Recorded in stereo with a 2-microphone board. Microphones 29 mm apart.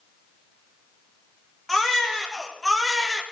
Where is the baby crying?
5° left (ahead or behind), 2.5 m.